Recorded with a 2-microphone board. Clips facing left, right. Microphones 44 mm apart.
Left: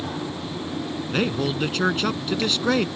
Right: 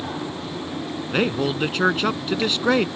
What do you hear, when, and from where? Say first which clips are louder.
1.1 s a man speaking: right 2 dB; 15° right (ahead or behind)